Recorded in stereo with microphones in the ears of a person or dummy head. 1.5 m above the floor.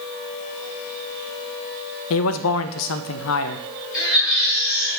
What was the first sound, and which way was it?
A man speaking, 70° left (ahead or behind).